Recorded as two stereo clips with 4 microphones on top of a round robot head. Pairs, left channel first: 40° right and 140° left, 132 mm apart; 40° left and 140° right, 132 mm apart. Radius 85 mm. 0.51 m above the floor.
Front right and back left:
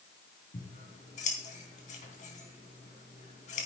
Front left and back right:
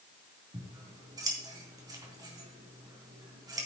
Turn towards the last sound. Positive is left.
turn(degrees=-75)